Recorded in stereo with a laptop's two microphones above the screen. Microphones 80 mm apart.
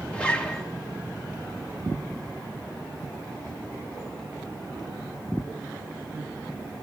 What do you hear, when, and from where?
0.1 s a zipper: 15° left (ahead or behind), 1.4 m